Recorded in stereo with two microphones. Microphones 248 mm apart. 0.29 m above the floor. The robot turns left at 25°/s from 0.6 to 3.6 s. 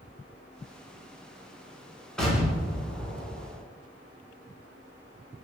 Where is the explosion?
5° left, 0.7 m; by 3.6 s 30° right, 0.7 m.